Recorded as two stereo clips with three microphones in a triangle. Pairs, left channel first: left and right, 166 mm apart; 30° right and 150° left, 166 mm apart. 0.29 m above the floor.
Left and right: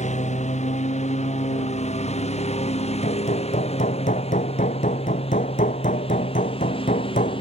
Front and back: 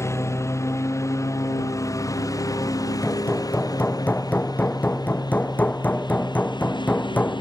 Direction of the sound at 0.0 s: 45° left.